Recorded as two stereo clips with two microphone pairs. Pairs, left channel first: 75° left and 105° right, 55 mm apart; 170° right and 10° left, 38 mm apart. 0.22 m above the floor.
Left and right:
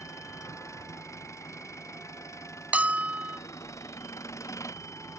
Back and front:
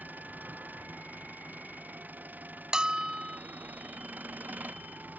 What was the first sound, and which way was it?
An engine running, 50° left.